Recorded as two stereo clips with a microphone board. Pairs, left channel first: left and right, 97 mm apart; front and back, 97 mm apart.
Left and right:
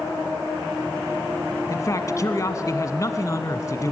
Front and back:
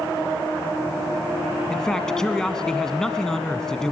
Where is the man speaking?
80° left, 1.2 m.